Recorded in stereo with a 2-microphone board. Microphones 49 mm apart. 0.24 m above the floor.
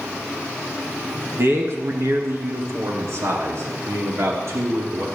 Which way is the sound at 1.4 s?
60° right (ahead or behind).